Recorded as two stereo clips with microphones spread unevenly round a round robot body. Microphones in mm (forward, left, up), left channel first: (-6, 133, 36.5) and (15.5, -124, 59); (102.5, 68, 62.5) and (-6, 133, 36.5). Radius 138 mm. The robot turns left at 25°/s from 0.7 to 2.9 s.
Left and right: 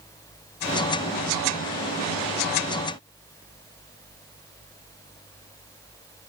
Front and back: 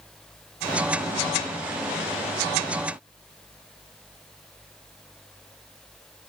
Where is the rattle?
No rattle in this recording.